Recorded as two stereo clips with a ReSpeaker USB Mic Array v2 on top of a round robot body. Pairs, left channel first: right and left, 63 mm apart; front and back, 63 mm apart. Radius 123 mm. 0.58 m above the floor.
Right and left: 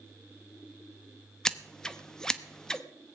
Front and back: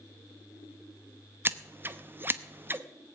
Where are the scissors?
160° right, 1.1 m.